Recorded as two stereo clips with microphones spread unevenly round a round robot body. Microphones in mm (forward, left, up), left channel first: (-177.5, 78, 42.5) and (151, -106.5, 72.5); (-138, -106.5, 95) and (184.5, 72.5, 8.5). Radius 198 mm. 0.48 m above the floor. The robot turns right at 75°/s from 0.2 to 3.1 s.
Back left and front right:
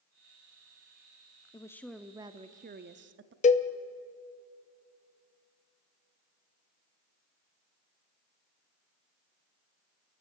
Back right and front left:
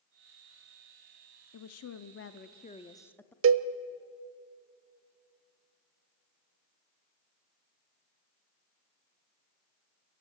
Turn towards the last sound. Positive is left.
turn(degrees=80)